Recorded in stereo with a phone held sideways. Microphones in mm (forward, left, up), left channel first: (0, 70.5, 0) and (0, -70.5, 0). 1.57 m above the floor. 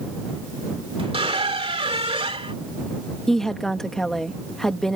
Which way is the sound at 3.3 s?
5° left (ahead or behind).